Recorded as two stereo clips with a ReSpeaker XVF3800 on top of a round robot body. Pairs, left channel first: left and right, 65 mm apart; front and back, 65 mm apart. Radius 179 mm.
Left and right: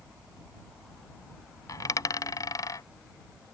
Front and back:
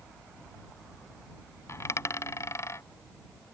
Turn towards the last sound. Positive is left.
turn(degrees=55)